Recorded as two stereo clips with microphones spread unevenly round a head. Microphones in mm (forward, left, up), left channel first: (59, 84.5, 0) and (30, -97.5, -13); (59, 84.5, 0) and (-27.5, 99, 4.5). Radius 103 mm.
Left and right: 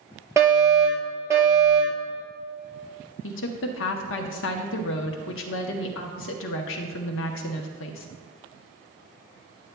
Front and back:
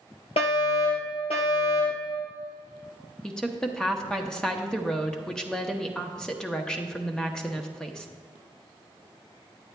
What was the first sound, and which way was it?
A fire alarm, 25° right.